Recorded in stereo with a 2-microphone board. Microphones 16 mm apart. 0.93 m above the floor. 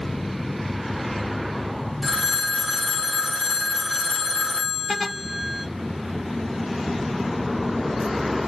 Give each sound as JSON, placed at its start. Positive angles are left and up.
{"t": 2.0, "sound": "a phone ringing", "side_deg": 0, "distance_m": 2.5}